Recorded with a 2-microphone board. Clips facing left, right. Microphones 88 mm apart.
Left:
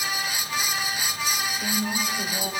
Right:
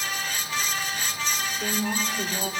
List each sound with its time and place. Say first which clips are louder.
1.6 s a woman speaking: right 2 dB; 50° right (ahead or behind), 6 m